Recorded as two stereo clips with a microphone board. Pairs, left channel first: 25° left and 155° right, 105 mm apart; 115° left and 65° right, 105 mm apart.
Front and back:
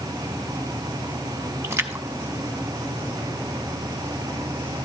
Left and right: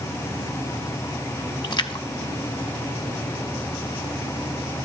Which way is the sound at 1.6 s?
145° left.